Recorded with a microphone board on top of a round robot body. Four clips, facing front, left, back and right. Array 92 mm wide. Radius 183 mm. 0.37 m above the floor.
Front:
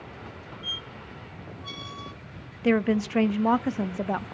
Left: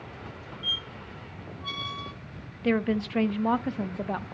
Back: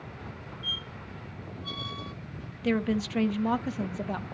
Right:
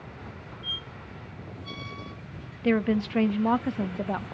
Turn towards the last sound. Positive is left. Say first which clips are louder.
# right 2 dB, front 5 dB
turn(degrees=-5)